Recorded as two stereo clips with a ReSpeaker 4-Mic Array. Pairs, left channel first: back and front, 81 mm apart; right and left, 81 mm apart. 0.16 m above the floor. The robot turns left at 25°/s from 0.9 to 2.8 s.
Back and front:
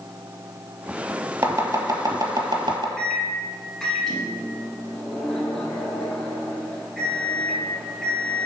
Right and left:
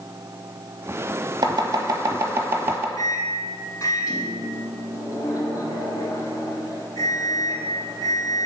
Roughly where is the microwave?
Right.